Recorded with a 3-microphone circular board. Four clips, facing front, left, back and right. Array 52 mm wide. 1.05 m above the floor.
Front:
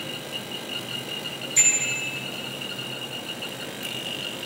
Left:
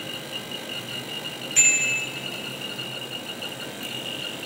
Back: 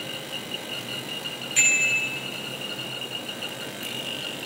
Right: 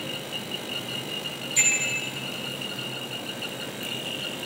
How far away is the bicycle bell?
About 9.5 m.